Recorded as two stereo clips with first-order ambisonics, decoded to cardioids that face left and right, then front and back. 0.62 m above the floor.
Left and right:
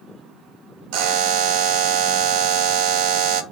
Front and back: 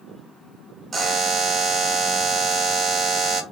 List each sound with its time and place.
0.9 s a buzzer: 110° right, 0.9 m